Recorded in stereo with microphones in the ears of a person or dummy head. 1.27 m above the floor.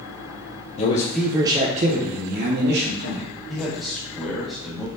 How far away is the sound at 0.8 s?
About 0.5 m.